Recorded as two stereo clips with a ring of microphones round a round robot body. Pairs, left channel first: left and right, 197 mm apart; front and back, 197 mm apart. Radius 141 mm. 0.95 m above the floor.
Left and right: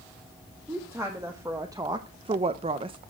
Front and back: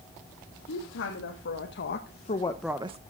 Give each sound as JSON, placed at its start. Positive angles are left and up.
{"t": 0.7, "sound": "a woman speaking", "azimuth_deg": -10, "distance_m": 2.0}